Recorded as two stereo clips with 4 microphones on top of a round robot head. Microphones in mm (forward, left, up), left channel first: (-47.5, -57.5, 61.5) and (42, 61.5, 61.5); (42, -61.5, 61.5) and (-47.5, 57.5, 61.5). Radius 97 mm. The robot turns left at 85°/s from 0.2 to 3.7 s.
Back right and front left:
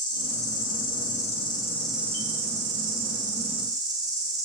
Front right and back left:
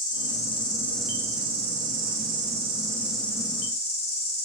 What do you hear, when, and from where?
0.0 s an insect: 75° right, 1.4 m; by 4.5 s 10° right, 1.4 m